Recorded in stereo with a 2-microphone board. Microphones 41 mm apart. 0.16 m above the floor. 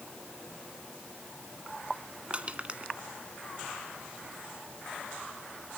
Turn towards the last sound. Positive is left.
turn(degrees=-30)  # may be behind; listen again after turning